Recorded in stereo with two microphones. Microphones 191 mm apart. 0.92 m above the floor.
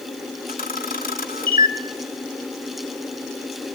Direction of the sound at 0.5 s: 50° left (ahead or behind).